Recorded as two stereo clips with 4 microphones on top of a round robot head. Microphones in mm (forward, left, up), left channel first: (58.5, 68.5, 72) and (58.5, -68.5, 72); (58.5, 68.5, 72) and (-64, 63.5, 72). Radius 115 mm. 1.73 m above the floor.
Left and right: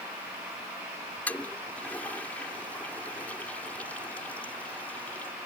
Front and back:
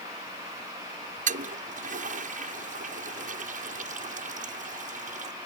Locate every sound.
1.3 s a toilet flushing: 170° left